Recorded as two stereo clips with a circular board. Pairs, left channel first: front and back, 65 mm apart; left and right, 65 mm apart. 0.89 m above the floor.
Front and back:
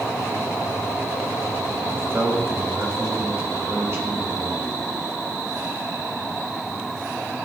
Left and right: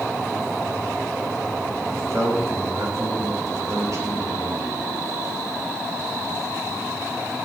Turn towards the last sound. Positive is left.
turn(degrees=-130)